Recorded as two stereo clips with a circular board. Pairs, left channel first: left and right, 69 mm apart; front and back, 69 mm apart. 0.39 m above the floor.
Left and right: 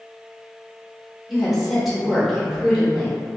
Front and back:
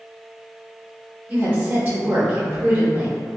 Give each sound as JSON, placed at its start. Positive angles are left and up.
{"t": 1.3, "sound": "a woman speaking", "azimuth_deg": 180, "distance_m": 1.0}